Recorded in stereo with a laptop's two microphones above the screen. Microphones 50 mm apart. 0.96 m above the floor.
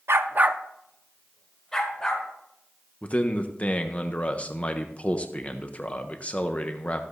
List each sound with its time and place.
0.1 s a dog barking: 60° right (ahead or behind), 0.6 m; by 2.3 s 15° left (ahead or behind), 3 m
3.0 s a man speaking: 30° left (ahead or behind), 0.7 m